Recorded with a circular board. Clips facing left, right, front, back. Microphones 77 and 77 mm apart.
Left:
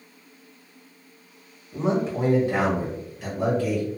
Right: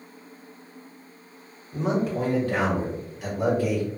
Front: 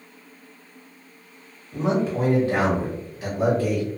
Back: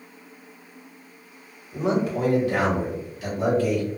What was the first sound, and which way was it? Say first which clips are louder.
A man speaking: left 1 dB, front 1 dB; 50° left.